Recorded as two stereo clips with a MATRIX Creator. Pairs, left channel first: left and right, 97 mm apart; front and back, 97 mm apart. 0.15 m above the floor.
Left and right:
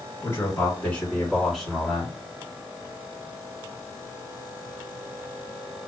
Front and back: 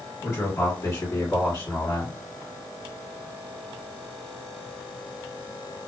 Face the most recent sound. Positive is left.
turn(degrees=-20)